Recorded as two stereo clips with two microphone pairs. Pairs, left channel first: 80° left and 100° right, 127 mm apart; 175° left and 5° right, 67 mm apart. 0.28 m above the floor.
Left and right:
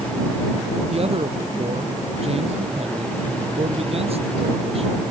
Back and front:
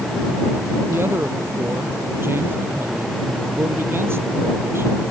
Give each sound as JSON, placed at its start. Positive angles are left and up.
{"t": 0.9, "sound": "a man speaking", "azimuth_deg": -60}